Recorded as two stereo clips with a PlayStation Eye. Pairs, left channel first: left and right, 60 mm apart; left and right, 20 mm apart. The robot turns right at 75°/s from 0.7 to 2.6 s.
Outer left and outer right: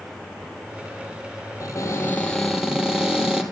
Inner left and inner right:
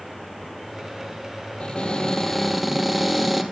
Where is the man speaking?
No man speaking in this recording.